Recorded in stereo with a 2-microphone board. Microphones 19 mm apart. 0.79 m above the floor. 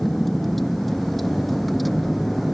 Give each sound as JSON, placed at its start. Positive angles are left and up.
{"t": 0.0, "sound": "a vehicle", "side_deg": 10}